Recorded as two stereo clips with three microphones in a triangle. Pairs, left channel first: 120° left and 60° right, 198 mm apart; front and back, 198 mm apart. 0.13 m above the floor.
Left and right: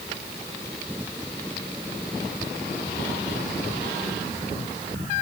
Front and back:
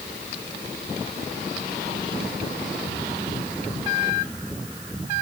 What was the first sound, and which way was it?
Only background noise.